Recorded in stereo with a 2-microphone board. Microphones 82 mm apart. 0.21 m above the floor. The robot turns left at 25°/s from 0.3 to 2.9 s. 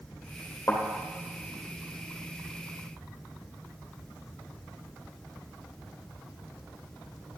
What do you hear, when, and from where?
0.7 s a thud: 25° left (ahead or behind), 3 m; by 0.8 s 30° left (ahead or behind), 3 m